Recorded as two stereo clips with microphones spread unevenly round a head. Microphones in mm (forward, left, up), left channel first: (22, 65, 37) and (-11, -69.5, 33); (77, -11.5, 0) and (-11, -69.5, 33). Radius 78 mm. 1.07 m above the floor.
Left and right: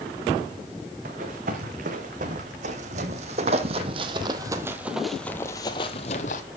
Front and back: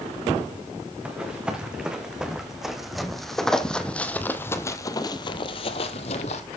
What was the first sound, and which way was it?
Running footsteps, 70° right.